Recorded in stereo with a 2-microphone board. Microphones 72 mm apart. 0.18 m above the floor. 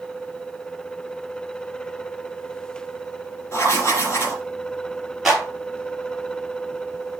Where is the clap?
5° right (ahead or behind), 4 m.